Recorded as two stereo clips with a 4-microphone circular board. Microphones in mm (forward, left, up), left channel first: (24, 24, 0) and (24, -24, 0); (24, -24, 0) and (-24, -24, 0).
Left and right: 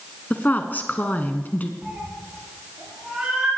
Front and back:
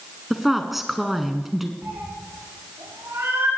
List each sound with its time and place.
0.3 s a woman speaking: 95° left, 1.2 m
1.8 s a cat meowing: 165° right, 8 m